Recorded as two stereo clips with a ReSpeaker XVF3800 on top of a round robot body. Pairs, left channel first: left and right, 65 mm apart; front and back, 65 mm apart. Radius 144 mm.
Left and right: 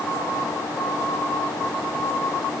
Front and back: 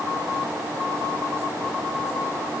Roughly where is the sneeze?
No sneeze in this recording.